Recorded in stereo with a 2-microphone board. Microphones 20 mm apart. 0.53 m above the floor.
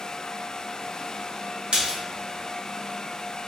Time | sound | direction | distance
1.7 | a splash | 55° right (ahead or behind) | 0.8 m